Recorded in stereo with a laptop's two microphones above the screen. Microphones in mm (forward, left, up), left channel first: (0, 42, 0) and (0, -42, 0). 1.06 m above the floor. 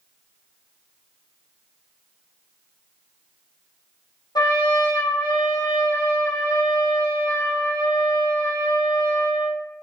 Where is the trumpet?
65° left (ahead or behind), 0.7 m.